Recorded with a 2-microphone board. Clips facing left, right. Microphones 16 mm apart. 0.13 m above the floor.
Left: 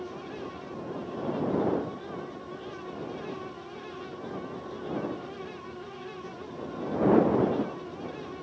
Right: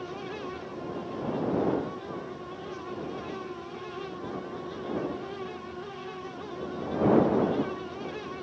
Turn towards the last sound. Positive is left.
No sound to turn to.